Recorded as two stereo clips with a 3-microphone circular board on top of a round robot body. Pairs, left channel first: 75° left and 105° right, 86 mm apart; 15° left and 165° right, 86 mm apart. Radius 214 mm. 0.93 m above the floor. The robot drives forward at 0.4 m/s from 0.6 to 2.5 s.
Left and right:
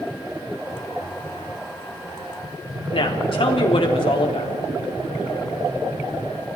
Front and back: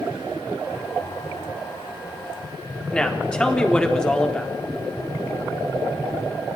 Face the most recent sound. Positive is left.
turn(degrees=95)